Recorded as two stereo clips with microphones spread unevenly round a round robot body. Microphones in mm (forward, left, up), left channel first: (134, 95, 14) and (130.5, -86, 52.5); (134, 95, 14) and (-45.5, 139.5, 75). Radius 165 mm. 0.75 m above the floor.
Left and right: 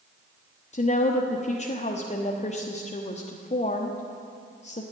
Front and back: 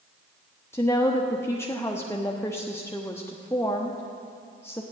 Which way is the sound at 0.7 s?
50° left.